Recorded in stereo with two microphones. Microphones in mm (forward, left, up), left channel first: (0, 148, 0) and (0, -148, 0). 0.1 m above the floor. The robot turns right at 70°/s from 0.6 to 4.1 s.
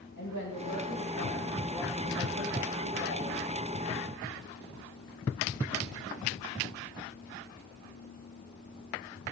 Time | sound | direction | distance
0.2 | a woman speaking | 95° left | 5.5 m